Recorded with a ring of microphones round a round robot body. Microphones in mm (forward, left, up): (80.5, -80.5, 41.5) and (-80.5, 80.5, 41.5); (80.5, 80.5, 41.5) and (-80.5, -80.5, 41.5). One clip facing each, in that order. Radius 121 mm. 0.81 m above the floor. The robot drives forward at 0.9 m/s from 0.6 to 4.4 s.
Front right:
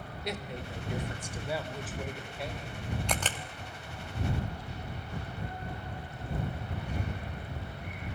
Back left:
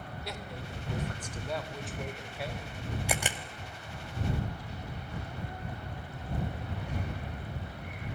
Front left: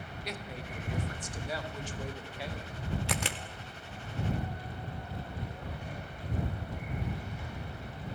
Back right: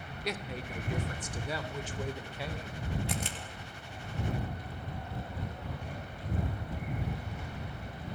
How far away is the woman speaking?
About 3 m.